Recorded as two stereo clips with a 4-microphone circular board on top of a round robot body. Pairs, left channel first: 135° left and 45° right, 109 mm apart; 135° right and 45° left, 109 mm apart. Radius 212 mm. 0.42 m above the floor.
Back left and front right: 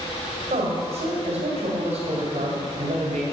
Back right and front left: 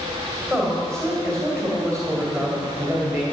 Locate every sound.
0.5 s a man speaking: 55° right, 2.5 m